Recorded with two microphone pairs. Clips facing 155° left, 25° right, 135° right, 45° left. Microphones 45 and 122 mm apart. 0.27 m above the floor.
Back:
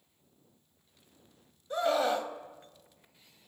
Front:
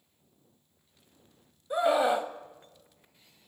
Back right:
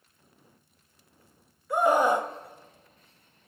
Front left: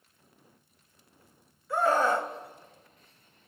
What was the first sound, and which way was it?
A scream, 80° right.